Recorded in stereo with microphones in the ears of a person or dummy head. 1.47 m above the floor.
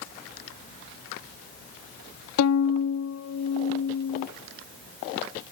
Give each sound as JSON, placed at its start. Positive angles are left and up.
{"t": 2.4, "sound": "a violin", "side_deg": 85}